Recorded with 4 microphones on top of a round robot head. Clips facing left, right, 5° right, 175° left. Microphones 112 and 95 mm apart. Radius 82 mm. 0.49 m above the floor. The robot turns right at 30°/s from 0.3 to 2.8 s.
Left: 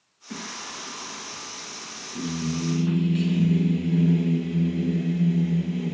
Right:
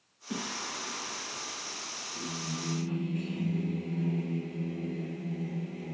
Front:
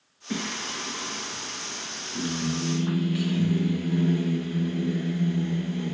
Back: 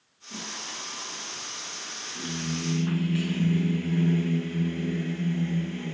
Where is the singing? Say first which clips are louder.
Even, front 8 dB; 10° right, 2.5 m; by 6.0 s 65° left, 2.5 m.